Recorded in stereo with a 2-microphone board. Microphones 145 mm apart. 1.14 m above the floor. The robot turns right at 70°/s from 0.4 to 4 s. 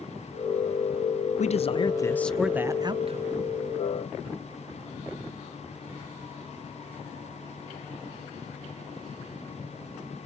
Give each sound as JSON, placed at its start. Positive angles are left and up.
{"t": 1.4, "sound": "a man speaking", "azimuth_deg": 110, "distance_m": 0.6}